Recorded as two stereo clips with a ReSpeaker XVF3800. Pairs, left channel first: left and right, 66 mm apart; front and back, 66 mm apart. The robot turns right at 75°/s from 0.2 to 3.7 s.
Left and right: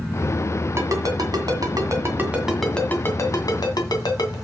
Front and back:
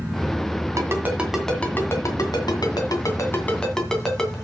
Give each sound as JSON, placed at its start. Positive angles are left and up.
{"t": 0.8, "sound": "a ringtone", "azimuth_deg": -135, "distance_m": 2.0}